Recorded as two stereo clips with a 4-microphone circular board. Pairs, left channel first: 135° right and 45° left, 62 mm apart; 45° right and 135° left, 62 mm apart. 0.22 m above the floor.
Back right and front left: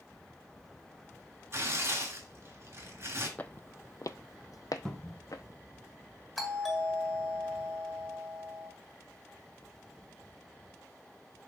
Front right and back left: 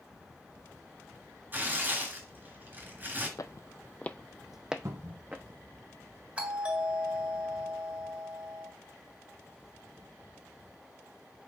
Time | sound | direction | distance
1.5 | tearing paper | 80° left | 2.5 m
3.4 | footsteps | 70° right | 0.5 m
4.8 | a cupboard door | 150° left | 1.2 m
6.4 | a doorbell | 140° left | 1.8 m